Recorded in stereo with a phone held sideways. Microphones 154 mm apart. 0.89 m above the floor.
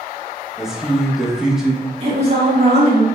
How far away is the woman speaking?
About 1.8 m.